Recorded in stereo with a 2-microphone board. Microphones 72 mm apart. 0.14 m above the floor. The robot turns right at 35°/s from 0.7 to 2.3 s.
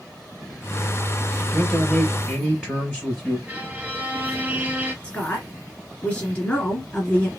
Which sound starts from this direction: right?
A violin, at 3.5 s.